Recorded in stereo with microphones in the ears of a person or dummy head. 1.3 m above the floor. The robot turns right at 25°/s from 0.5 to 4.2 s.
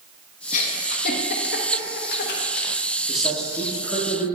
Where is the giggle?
45° left (ahead or behind), 0.9 m; by 2.7 s 60° left (ahead or behind), 0.9 m.